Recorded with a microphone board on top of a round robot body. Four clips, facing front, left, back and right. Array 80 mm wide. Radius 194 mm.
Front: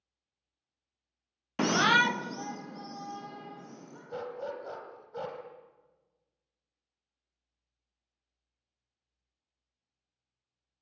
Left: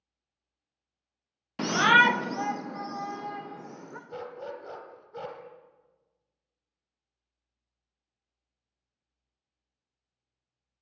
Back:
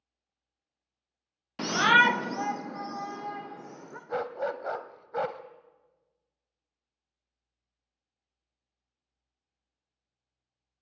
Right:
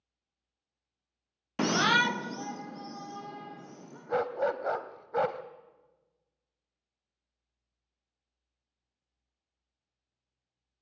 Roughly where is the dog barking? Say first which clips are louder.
Right 11 dB, back 6 dB; behind right.